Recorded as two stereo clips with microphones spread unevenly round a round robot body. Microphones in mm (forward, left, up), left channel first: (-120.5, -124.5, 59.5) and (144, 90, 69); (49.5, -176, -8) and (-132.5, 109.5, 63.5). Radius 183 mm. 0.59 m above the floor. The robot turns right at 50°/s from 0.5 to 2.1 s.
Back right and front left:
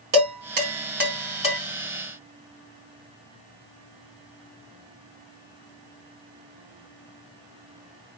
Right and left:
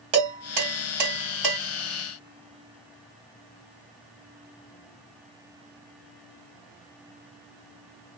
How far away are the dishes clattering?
About 1.6 m.